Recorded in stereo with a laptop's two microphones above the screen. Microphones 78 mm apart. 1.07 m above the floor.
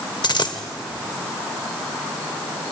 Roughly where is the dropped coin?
Left.